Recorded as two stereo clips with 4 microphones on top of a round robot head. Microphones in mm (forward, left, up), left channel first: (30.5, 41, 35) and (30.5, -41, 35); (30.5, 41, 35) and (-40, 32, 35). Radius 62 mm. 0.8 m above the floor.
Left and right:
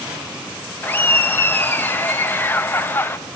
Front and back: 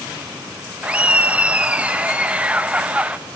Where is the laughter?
130° left, 0.7 m.